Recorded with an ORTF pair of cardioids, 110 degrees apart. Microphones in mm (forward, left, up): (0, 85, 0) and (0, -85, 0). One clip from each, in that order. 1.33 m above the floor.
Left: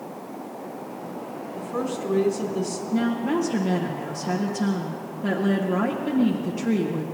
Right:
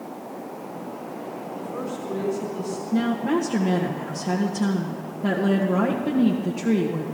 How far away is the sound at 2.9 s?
About 1.6 m.